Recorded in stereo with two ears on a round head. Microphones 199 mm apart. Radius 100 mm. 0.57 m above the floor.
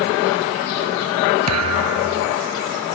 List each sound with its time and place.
1.5 s a thud: 90° right